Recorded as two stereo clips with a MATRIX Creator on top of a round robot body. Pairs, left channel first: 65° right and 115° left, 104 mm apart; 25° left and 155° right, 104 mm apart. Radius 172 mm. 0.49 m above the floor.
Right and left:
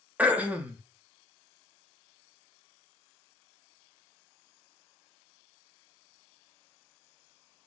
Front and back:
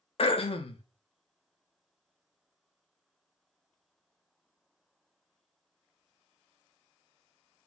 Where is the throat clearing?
40° left, 0.6 m.